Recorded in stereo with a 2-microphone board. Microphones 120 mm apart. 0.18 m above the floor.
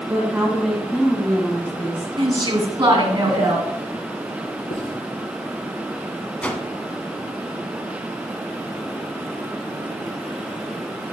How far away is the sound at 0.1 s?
About 1.7 m.